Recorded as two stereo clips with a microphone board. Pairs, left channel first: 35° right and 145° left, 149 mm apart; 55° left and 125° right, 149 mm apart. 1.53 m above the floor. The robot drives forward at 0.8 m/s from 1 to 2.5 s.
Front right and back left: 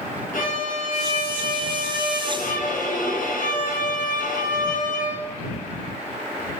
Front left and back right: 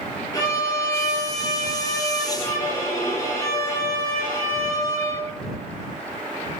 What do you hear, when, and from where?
0.3 s a violin: 10° right, 5.5 m